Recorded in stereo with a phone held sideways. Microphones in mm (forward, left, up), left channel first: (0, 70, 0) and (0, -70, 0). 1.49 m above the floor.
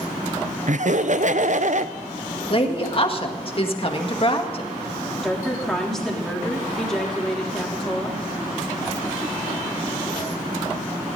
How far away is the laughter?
About 0.6 m.